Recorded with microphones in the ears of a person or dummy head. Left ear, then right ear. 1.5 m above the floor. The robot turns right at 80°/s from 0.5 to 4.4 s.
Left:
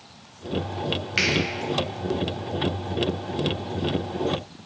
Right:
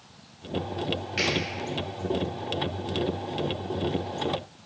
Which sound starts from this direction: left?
A finger snap, at 1.2 s.